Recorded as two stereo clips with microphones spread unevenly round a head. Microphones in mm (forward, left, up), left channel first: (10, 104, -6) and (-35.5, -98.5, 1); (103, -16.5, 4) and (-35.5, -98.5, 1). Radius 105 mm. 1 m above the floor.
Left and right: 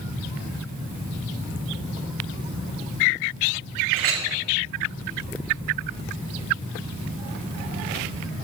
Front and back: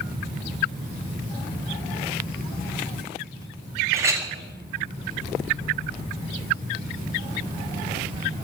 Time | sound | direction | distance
3.9 | a clink | 75° right | 1.6 m